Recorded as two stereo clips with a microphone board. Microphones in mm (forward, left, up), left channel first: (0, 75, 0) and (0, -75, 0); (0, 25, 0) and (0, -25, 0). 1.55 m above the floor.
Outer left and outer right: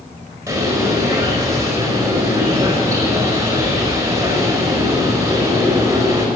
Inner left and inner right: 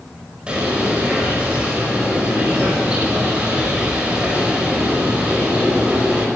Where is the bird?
20° right (ahead or behind), 5 m.